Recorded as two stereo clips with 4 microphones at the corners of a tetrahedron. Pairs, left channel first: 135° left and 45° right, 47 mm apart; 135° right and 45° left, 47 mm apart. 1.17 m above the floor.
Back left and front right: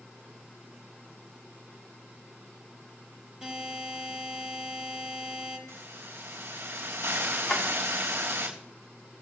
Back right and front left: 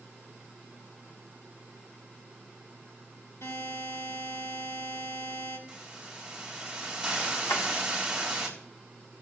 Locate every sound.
3.4 s a buzzer: 115° right, 6.5 m
5.7 s a hiss: 30° right, 4 m
7.5 s a drawer: 145° right, 2.5 m